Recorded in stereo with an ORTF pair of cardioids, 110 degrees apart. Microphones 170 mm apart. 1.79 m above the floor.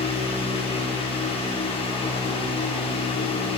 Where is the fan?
35° left, 1.1 m.